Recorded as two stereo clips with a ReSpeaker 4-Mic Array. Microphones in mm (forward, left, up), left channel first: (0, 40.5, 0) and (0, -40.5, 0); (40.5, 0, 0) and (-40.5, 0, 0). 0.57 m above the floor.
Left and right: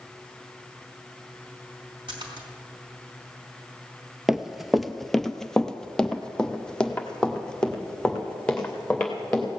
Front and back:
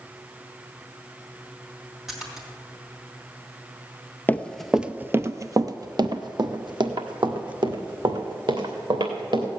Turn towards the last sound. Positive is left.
turn(degrees=170)